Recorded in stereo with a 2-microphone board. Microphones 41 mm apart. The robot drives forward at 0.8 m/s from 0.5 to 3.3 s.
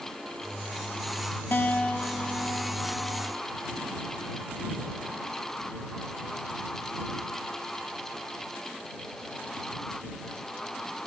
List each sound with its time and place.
1.5 s a guitar: 55° left (ahead or behind), 0.7 m; by 3.5 s 20° left (ahead or behind), 1.9 m